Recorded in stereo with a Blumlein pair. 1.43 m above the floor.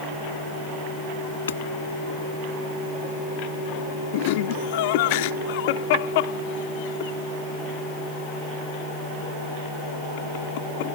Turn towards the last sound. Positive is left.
turn(degrees=50)